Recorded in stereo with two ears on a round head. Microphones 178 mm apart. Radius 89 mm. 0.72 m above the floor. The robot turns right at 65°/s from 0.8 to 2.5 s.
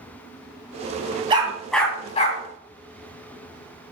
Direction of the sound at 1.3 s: 25° right (ahead or behind).